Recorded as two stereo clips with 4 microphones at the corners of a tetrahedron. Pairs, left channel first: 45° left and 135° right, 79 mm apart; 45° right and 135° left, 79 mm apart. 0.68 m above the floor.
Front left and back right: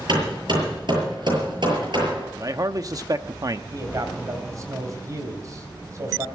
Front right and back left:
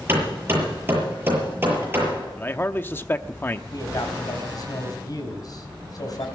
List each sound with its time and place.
0.1 s hammering: 160° right, 7 m
2.4 s a man speaking: 105° right, 0.8 m
3.7 s a man speaking: 85° right, 3.5 m